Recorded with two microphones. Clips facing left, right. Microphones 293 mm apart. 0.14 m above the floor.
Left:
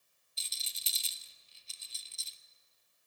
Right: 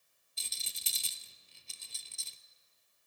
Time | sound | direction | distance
0.4 | a rattle | 65° right (ahead or behind) | 0.6 m